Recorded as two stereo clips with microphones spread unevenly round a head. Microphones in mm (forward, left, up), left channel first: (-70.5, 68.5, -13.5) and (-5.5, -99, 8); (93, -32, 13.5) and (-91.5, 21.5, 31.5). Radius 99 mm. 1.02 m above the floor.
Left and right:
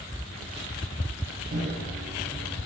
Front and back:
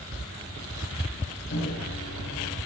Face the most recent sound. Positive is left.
turn(degrees=-20)